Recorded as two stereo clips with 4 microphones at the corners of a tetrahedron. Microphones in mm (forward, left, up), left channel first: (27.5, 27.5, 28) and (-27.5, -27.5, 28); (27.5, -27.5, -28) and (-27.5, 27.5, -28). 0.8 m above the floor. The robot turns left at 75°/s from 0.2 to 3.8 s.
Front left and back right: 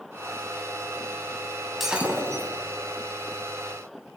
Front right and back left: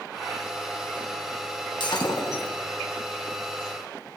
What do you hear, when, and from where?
1.8 s breaking glass: 50° right, 1.6 m; by 2.5 s 100° right, 1.6 m